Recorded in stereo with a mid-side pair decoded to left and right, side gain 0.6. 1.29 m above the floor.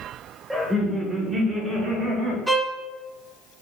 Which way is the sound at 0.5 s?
15° right.